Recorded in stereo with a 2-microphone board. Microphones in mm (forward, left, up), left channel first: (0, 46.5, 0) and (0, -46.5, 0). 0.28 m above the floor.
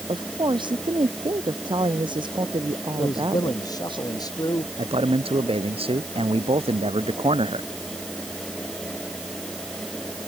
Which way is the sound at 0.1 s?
55° right (ahead or behind).